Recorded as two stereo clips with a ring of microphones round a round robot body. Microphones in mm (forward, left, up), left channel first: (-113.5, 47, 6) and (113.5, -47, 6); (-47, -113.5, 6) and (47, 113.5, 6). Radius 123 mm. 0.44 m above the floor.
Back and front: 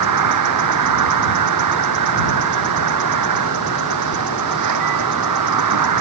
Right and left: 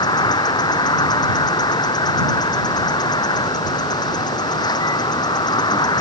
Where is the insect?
40° right.